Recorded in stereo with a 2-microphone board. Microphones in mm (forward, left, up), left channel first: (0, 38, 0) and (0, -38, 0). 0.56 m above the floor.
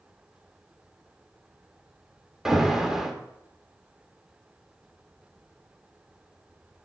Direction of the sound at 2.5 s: 5° right (ahead or behind).